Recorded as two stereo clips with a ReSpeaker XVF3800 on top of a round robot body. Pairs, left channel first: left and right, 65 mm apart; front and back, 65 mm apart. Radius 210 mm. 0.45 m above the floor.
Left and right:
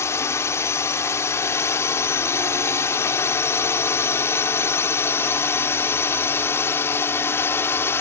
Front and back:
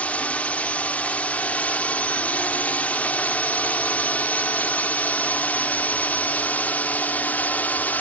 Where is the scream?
I don't hear a scream.